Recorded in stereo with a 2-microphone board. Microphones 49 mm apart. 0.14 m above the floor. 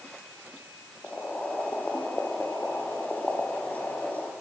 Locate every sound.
1.0 s boiling: 30° left (ahead or behind), 3 m